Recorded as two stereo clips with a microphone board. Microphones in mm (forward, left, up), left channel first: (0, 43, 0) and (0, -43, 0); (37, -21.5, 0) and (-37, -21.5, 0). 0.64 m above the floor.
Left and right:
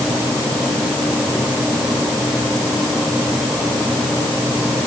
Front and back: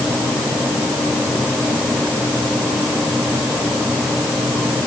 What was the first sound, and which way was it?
Only background noise.